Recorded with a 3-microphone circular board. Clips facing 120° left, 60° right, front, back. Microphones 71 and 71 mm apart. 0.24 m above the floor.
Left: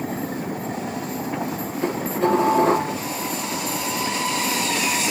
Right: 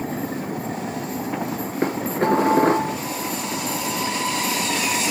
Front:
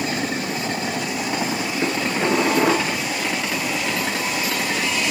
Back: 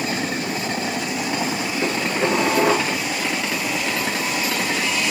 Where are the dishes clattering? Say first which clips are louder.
Even, even; 80° right, 2.5 m.